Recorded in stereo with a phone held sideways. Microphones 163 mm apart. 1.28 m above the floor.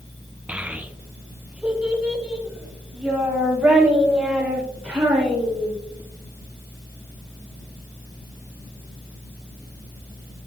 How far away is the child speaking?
About 0.6 m.